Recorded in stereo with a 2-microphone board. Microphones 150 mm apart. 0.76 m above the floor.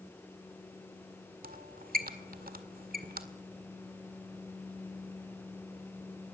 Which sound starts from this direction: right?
A squeak, at 1.4 s.